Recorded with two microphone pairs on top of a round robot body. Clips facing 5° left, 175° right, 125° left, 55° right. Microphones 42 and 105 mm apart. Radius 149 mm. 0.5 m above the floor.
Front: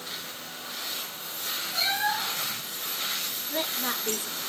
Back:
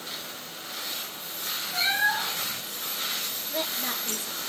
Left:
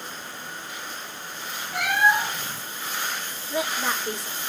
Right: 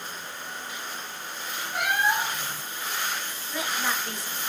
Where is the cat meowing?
120° left, 1.7 m.